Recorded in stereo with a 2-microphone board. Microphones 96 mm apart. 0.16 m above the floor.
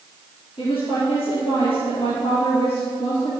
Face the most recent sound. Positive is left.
turn(degrees=70)  # may be behind; listen again after turning